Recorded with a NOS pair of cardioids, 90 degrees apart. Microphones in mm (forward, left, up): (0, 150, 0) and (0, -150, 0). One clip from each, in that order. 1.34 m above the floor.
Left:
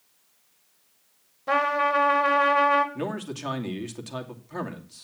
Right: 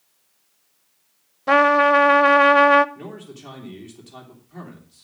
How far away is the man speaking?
About 2.5 m.